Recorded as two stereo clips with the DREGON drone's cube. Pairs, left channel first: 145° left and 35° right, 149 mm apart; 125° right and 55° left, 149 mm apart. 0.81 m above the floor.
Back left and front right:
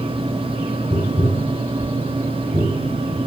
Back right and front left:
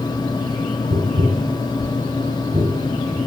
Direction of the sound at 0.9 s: 25° left.